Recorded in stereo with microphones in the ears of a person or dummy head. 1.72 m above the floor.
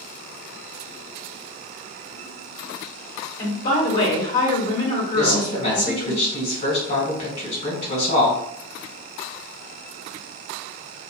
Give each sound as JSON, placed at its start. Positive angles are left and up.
{"t": 3.4, "sound": "a woman speaking", "side_deg": 50, "distance_m": 1.3}
{"t": 5.2, "sound": "a man speaking", "side_deg": 55, "distance_m": 1.4}